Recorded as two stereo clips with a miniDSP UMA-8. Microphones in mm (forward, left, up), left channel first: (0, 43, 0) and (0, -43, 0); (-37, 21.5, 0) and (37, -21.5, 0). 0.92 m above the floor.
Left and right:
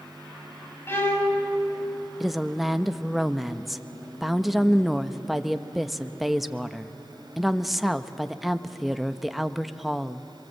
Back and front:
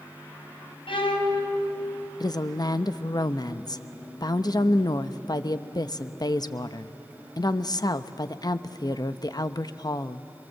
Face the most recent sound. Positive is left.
turn(degrees=-175)